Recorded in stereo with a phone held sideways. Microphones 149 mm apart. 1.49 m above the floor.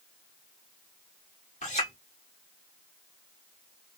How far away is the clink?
About 2.5 m.